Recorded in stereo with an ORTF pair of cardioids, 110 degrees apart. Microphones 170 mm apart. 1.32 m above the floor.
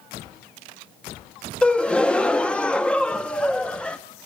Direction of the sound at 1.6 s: 5° left.